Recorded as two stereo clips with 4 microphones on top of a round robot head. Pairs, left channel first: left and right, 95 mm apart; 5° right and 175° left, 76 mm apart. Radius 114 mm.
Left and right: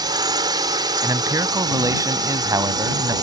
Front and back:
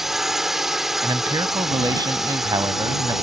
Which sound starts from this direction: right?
A drone, at 0.0 s.